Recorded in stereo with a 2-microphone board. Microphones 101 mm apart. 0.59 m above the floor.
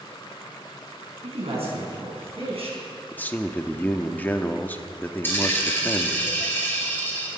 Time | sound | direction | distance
1.2 | a man speaking | 80° right | 4.5 m
3.1 | a man speaking | 15° left (ahead or behind) | 0.7 m
5.2 | a dropped coin | 20° left (ahead or behind) | 2.5 m